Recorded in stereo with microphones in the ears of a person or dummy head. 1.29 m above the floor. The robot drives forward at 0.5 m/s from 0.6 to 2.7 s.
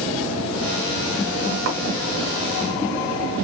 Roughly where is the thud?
Right.